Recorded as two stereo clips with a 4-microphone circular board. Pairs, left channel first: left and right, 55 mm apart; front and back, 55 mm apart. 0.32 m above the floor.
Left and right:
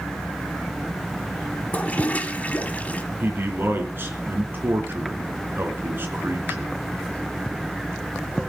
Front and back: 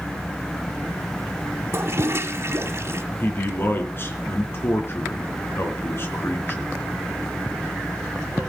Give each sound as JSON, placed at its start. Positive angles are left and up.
{"t": 1.7, "sound": "a toilet flushing", "azimuth_deg": 150, "distance_m": 1.3}
{"t": 3.2, "sound": "a man speaking", "azimuth_deg": -45, "distance_m": 3.5}